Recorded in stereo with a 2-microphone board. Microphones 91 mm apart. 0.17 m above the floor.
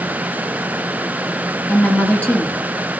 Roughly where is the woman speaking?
Left.